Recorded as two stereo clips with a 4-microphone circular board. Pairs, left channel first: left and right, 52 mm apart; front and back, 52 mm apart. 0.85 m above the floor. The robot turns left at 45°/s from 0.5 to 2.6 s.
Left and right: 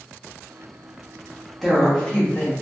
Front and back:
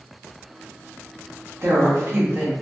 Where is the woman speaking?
175° left, 1.2 m; by 2.5 s 135° left, 1.2 m.